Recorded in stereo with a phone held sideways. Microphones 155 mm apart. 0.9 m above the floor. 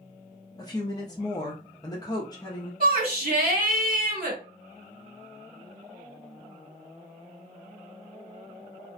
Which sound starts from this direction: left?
A woman speaking, at 0.6 s.